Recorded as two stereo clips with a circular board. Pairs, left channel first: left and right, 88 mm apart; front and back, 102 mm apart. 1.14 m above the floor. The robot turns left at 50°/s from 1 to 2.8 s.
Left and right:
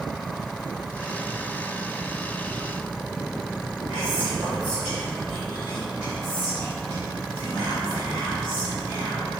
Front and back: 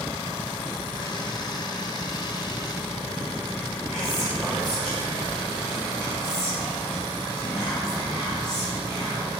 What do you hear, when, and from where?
3.9 s whispering: 95° right, 1.5 m